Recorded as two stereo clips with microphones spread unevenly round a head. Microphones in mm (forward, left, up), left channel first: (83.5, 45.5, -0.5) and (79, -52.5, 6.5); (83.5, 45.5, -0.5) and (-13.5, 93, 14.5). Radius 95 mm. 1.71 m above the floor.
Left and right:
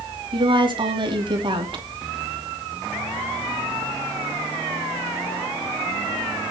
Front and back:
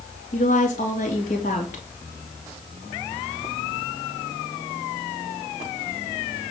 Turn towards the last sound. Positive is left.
turn(degrees=-60)